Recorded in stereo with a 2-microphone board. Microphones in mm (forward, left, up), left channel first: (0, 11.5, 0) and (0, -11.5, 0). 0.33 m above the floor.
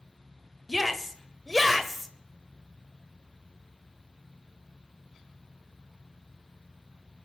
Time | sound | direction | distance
0.7 | a shout | 5° left (ahead or behind) | 1.1 m